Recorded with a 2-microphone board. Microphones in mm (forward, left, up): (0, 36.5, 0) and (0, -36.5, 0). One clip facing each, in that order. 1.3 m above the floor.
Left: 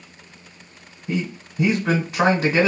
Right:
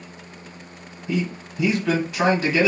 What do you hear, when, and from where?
1.1 s a man speaking: 35° left (ahead or behind), 1.0 m